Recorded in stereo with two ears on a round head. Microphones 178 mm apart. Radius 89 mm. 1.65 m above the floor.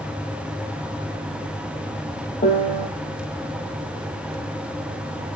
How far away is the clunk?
No clunk in this recording.